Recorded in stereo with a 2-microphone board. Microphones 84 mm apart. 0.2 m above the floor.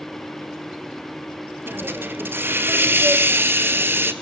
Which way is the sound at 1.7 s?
25° right (ahead or behind).